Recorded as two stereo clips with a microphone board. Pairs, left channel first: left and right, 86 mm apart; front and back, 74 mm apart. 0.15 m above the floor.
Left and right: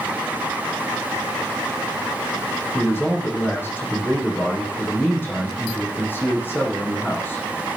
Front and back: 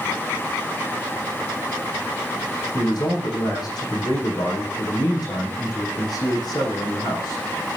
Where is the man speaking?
25° left, 7 m.